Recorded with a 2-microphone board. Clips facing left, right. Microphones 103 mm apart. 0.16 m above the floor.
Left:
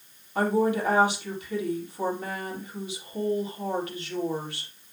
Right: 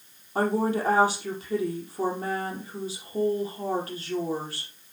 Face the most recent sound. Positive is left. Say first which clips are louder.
# left 1 dB
turn(degrees=-35)  # may be behind; listen again after turning